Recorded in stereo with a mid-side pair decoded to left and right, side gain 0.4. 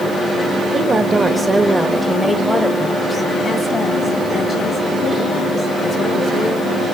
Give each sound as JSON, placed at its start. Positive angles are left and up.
{"t": 0.7, "sound": "a woman speaking", "azimuth_deg": -40, "distance_m": 1.6}